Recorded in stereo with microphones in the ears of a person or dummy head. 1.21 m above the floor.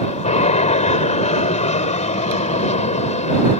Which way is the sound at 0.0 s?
35° left (ahead or behind).